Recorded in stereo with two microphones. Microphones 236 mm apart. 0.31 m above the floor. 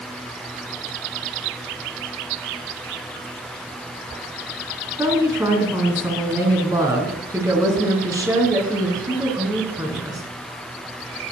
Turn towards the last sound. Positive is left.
turn(degrees=-15)  # may be behind; listen again after turning